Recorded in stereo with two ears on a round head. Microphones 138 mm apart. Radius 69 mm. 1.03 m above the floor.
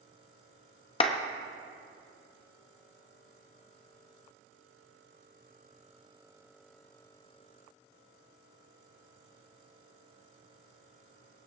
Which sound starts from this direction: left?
A clap, at 1.0 s.